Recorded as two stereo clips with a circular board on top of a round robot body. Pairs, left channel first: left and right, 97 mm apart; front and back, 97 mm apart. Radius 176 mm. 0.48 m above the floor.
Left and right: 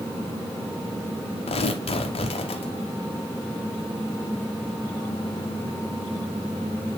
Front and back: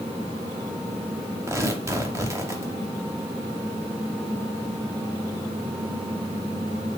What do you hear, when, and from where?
1.5 s tearing paper: 115° left, 0.6 m